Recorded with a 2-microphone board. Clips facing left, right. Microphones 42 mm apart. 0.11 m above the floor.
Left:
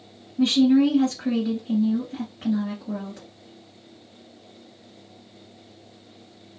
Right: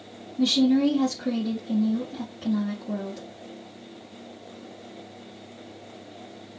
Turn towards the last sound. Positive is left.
turn(degrees=30)  # may be behind; listen again after turning